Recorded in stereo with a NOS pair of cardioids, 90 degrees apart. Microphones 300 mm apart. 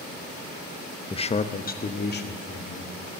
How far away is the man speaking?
About 0.7 m.